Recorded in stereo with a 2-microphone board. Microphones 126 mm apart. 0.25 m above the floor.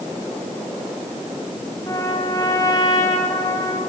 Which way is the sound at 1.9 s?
25° left (ahead or behind).